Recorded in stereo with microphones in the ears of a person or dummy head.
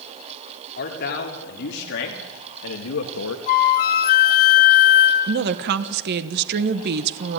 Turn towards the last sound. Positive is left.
turn(degrees=-55)  # may be behind; listen again after turning